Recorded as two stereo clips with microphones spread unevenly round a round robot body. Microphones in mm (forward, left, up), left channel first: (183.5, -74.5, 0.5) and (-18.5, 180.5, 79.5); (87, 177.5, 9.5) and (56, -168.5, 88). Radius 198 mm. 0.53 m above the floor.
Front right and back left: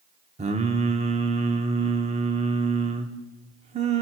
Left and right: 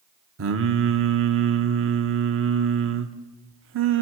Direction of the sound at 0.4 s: 155° right.